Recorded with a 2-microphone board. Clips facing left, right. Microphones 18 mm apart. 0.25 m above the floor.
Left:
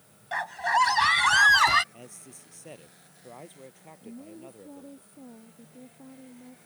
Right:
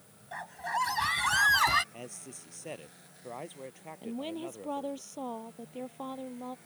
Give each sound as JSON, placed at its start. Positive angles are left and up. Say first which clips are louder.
{"t": 0.3, "sound": "a scream", "louder": "left 9 dB", "side_deg": 45}
{"t": 1.9, "sound": "a man speaking", "louder": "right 3 dB", "side_deg": -20}
{"t": 4.0, "sound": "a woman speaking", "louder": "right 7 dB", "side_deg": -80}